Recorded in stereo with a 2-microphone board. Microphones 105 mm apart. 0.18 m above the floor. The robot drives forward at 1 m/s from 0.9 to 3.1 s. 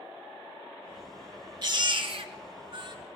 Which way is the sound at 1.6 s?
45° right (ahead or behind).